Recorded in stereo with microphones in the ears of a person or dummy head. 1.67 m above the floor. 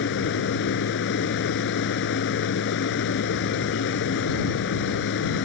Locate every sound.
0.0 s a machine running: 65° left (ahead or behind)